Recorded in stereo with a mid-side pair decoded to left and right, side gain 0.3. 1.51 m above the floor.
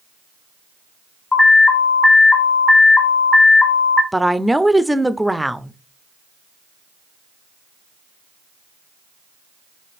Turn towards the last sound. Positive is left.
turn(degrees=-5)